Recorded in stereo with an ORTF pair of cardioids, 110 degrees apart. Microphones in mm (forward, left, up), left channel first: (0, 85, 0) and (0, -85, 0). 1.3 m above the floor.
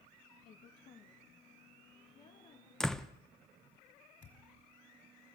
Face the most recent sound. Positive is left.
turn(degrees=50)